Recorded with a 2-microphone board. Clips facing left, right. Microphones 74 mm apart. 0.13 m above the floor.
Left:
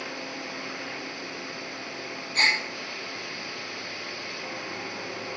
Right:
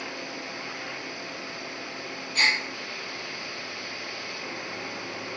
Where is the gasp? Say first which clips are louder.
Even; 40° left (ahead or behind), 1.3 m.